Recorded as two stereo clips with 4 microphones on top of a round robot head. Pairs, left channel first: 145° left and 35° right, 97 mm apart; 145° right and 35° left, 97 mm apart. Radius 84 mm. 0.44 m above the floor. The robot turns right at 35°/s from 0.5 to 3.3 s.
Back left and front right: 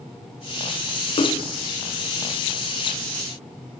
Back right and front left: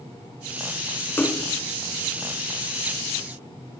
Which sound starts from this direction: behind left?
A splash, at 1.2 s.